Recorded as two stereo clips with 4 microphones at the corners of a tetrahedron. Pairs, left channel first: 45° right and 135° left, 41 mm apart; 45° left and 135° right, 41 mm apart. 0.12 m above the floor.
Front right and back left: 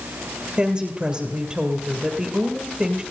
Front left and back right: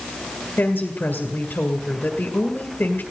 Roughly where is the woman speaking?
Ahead left.